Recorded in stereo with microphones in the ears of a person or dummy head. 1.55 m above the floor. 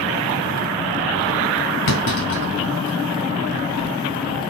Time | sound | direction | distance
1.9 | a clunk | 60° left (ahead or behind) | 2.5 m